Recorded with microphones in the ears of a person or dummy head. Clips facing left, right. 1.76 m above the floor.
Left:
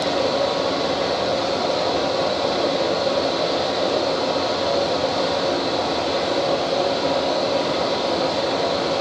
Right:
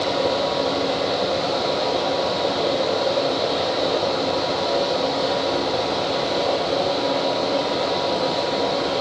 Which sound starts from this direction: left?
A fan, at 0.0 s.